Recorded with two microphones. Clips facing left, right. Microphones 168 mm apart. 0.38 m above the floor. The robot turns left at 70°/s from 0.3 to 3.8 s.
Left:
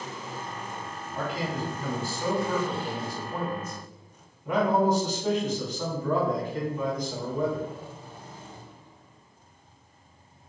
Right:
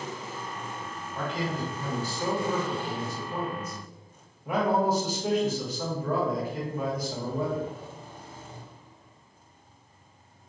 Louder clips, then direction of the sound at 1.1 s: Even; 10° left (ahead or behind).